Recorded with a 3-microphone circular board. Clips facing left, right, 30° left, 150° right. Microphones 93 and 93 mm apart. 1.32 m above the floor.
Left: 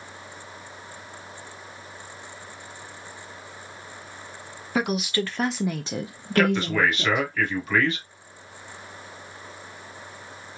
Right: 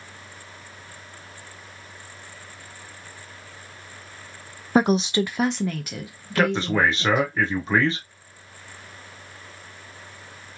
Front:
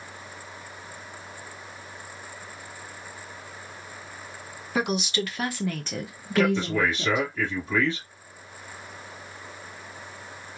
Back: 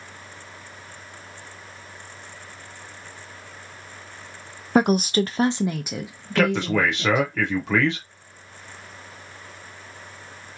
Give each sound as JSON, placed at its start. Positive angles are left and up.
{"t": 4.8, "sound": "a woman speaking", "azimuth_deg": -125, "distance_m": 0.6}
{"t": 6.4, "sound": "a man speaking", "azimuth_deg": -150, "distance_m": 1.2}